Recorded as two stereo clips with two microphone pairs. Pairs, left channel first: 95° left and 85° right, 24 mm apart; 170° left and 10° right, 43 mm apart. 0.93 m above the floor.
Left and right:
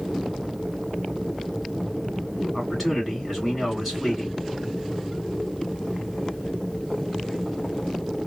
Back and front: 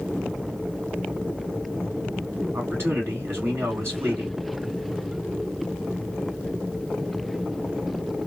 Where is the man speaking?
10° left, 2 m.